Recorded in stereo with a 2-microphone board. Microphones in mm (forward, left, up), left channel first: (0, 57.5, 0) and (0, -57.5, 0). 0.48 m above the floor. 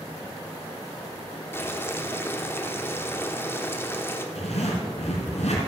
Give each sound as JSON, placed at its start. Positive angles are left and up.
{"t": 1.5, "sound": "boiling", "side_deg": 20, "distance_m": 1.0}
{"t": 4.3, "sound": "a zipper", "side_deg": 75, "distance_m": 3.0}